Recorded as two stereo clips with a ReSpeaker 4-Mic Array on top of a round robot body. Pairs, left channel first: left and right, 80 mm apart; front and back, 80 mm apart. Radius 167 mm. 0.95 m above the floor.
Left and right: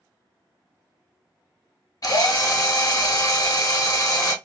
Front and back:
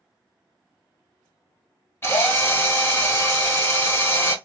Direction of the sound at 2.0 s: 55° left.